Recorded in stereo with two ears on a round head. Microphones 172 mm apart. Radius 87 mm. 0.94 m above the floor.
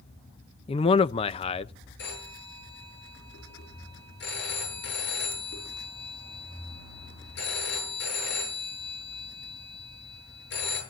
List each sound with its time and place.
0.7 s a man speaking: 30° left (ahead or behind), 0.6 m
2.0 s a phone ringing: 65° left (ahead or behind), 8.5 m